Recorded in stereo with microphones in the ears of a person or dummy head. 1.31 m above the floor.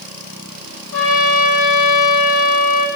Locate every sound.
0.9 s a trumpet: 90° left, 2.5 m